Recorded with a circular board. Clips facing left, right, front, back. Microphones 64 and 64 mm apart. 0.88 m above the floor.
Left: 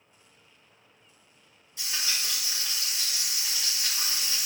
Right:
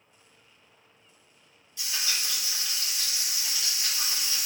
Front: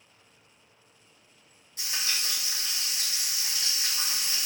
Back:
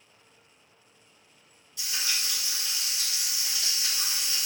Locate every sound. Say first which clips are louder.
1.8 s frying: even, even; 30° left, 1.7 m